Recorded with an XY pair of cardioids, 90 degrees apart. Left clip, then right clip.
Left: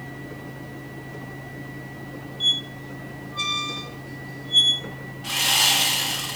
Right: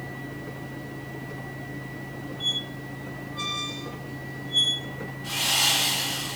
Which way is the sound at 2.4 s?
60° left.